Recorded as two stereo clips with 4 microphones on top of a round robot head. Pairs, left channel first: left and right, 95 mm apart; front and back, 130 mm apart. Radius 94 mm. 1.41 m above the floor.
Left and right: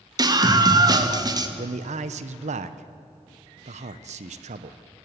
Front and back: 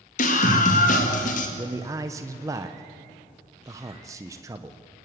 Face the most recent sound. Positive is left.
turn(degrees=-105)